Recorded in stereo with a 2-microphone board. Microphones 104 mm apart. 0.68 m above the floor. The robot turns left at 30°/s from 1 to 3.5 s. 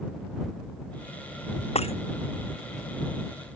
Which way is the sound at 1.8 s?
85° left.